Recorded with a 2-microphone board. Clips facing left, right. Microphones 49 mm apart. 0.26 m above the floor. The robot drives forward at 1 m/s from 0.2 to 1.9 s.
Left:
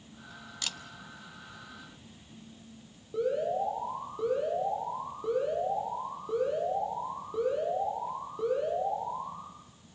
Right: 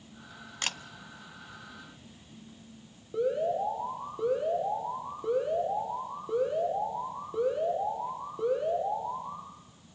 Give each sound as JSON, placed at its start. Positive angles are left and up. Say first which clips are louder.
{"t": 0.6, "sound": "a camera shutter", "louder": "right 5 dB", "side_deg": -45, "distance_m": 0.7}
{"t": 3.1, "sound": "an alarm", "louder": "right 1 dB", "side_deg": -10, "distance_m": 9.5}